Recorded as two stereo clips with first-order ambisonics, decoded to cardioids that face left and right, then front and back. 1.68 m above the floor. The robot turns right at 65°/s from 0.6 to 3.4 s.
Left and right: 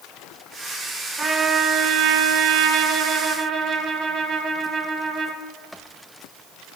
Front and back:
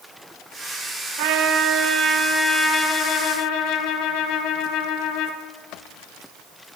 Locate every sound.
1.2 s a trumpet: 175° right, 0.6 m; by 5.4 s 30° right, 0.6 m